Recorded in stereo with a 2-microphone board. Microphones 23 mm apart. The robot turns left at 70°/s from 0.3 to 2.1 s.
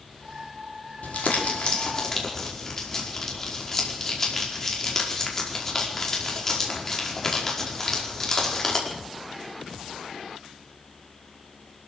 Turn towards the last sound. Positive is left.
turn(degrees=20)